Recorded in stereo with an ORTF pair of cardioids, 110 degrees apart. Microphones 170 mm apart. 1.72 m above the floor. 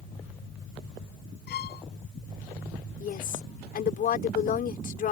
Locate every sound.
1.5 s a violin: 70° left
3.0 s a woman speaking: 55° left